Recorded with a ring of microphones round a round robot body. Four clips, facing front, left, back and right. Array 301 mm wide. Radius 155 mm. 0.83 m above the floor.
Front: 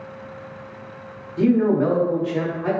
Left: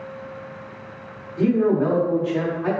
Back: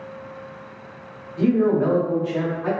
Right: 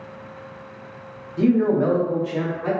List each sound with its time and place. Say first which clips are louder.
1.4 s a man speaking: right 1 dB, front 1 dB; 40° right, 1.0 m; by 2.7 s 105° left, 0.9 m